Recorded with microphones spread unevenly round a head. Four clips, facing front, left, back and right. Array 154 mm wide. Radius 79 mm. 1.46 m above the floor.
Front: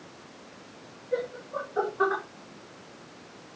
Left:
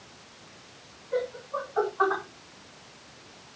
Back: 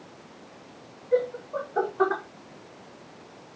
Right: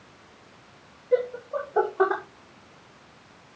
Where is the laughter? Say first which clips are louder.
Right 6 dB, back 6 dB; 100° right, 3 m; by 2.2 s 110° right, 2 m.